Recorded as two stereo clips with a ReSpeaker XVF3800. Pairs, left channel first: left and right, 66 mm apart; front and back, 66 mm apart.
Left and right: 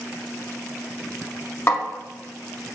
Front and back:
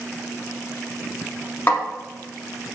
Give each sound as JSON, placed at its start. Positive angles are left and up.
{"t": 1.7, "sound": "a snare drum", "azimuth_deg": 45, "distance_m": 0.7}